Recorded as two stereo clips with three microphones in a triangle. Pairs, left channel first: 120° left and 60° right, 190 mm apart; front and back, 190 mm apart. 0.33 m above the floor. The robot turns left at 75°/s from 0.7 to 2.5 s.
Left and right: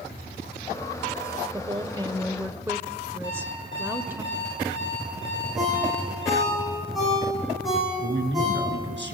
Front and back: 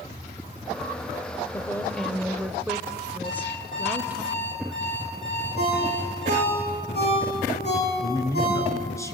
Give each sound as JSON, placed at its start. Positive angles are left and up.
{"t": 1.5, "sound": "a woman speaking", "azimuth_deg": -45, "distance_m": 0.8}
{"t": 3.2, "sound": "an alarm clock", "azimuth_deg": -55, "distance_m": 9.0}
{"t": 5.6, "sound": "a ringtone", "azimuth_deg": 30, "distance_m": 9.5}
{"t": 8.0, "sound": "a man speaking", "azimuth_deg": -75, "distance_m": 3.5}